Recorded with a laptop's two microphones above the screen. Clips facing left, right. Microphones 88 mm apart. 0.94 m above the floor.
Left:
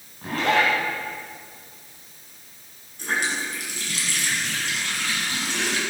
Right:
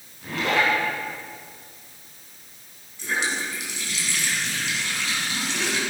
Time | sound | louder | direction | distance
0.2 | a zipper | left 2 dB | 45° left (ahead or behind) | 5.5 m
3.0 | a running tap | left 1 dB | 50° left (ahead or behind) | 6 m